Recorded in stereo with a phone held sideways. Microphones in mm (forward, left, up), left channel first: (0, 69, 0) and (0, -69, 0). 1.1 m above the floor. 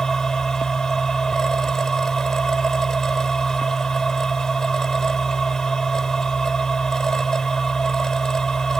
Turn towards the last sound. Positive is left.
turn(degrees=5)  # may be behind; listen again after turning